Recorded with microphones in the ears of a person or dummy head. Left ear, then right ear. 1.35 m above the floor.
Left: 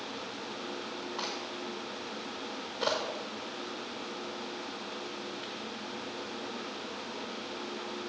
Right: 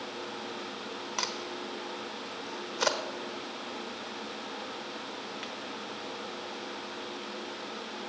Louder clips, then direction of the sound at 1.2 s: Right 4 dB; 70° right (ahead or behind).